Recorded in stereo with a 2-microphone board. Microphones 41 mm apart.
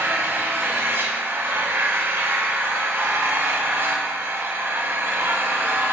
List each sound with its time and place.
0.0 s an engine running: 75° right (ahead or behind), 1.3 m